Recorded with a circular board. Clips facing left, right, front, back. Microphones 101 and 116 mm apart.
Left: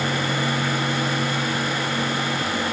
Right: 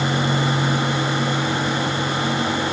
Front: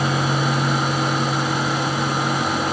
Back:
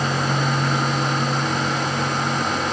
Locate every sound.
Only background noise.